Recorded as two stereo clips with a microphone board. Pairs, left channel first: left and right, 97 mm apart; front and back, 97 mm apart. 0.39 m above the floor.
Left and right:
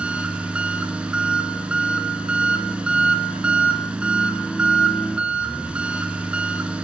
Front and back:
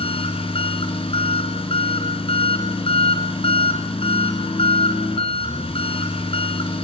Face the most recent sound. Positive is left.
turn(degrees=-10)